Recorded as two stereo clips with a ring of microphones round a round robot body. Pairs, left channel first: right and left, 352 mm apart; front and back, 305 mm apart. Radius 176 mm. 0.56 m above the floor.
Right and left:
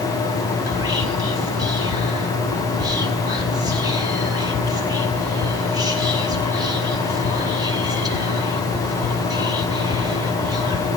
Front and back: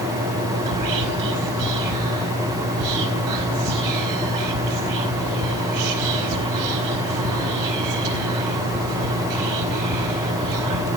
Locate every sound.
0.7 s whispering: 170° left, 4.5 m